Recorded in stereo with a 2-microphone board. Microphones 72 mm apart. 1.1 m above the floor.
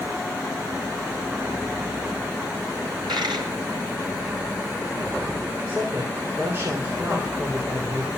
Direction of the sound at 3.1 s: 80° right.